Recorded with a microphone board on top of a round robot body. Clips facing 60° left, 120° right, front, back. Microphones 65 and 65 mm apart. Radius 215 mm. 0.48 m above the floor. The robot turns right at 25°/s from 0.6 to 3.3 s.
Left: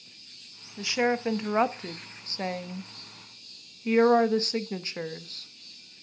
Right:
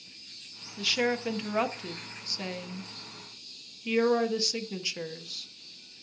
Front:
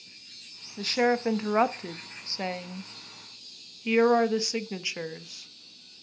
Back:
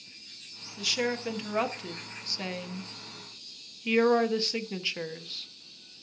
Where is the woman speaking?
5° left, 1.0 m; by 5.5 s 65° left, 1.0 m.